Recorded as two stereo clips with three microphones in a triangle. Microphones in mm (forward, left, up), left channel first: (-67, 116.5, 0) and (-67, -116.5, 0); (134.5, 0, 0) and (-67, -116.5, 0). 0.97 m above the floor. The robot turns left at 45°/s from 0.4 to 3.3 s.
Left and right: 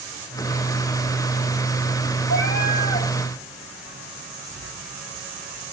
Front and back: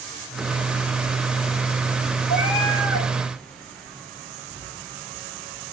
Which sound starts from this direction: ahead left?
A cat meowing, at 2.3 s.